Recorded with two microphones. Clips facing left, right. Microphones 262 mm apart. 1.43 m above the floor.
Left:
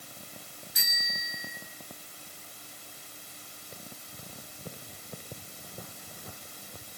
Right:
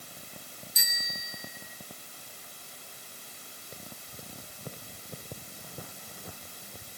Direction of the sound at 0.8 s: 75° left (ahead or behind).